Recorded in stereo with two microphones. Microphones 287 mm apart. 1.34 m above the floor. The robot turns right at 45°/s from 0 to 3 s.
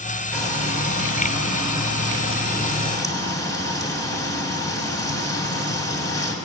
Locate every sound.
0.3 s frying: 45° left, 3 m; by 6.3 s 170° left, 3 m